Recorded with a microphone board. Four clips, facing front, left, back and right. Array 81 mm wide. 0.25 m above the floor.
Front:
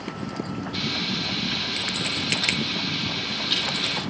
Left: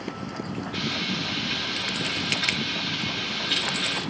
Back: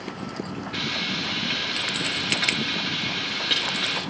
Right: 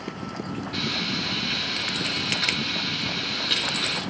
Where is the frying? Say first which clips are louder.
Even, back 1 dB; 165° right, 8 m.